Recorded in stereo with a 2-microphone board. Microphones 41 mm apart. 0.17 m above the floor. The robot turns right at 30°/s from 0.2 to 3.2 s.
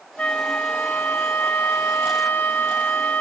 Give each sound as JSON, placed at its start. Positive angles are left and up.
{"t": 0.2, "sound": "a flute", "azimuth_deg": 40, "distance_m": 0.8}